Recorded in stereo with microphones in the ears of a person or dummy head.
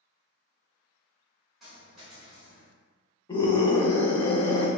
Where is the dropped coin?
5° left (ahead or behind), 2.0 m.